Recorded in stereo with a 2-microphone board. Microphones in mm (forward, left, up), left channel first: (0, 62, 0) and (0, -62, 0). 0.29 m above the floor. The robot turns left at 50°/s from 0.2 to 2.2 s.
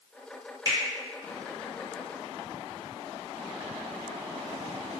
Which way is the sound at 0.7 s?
30° left (ahead or behind).